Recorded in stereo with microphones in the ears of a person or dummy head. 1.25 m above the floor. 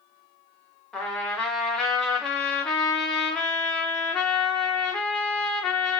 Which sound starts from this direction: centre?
A trumpet, at 0.9 s.